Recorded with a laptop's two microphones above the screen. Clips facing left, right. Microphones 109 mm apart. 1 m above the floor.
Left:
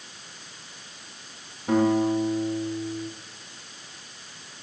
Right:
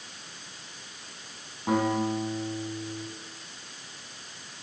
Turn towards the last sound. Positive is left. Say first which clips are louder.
# left 5 dB
turn(degrees=-75)  # may be behind; listen again after turning